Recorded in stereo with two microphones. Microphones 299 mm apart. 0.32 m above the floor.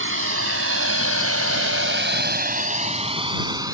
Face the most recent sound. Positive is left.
turn(degrees=-10)  # may be behind; listen again after turning